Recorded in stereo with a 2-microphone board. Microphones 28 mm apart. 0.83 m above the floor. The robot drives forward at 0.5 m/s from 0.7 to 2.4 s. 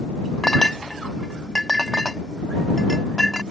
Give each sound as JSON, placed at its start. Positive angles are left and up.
{"t": 0.4, "sound": "a clink", "side_deg": 20}